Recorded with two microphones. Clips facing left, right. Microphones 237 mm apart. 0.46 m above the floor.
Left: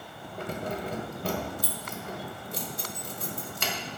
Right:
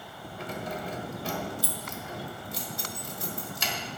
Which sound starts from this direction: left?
Keys jangling, at 0.4 s.